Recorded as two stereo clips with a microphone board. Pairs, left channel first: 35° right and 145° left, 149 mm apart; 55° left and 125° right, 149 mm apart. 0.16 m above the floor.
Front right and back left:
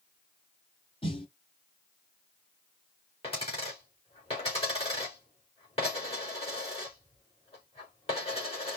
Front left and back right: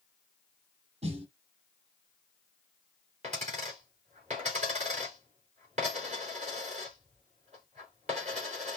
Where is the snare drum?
85° right, 2.5 m.